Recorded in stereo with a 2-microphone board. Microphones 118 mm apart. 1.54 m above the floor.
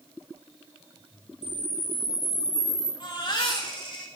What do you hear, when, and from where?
1.4 s a camera shutter: 60° right (ahead or behind), 5 m
3.0 s a baby crying: 40° left (ahead or behind), 2.5 m